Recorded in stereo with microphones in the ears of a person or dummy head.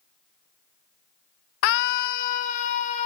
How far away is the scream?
About 0.6 m.